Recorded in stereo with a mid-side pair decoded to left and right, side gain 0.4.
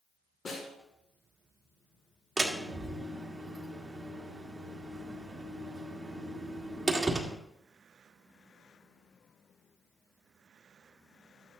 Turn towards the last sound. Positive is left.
turn(degrees=-25)